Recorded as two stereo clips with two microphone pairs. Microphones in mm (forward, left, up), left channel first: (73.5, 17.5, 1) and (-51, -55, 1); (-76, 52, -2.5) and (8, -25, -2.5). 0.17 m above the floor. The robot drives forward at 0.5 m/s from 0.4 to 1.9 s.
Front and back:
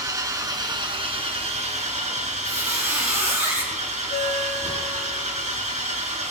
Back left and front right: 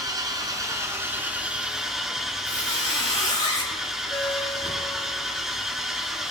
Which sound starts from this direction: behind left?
A squeak, at 2.4 s.